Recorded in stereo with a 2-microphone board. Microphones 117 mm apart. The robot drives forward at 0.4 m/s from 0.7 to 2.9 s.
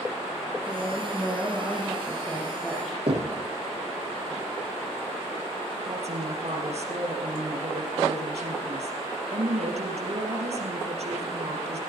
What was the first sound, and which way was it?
A woman speaking, centre (ahead or behind).